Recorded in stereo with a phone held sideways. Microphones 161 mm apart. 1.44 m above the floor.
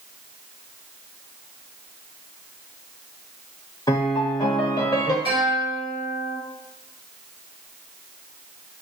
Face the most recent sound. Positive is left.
turn(degrees=-75)  # may be behind; listen again after turning